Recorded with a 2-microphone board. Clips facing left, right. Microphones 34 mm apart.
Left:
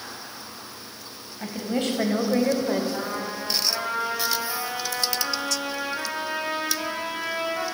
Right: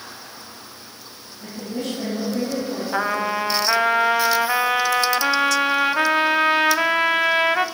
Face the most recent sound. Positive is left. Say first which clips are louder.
# right 8 dB
turn(degrees=-60)  # may be behind; listen again after turning